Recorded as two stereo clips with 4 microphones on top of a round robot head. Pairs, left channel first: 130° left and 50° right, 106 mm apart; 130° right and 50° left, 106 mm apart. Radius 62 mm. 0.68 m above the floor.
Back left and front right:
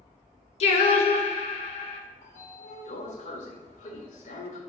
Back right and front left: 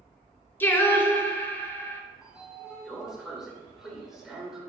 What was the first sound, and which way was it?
Singing, 160° left.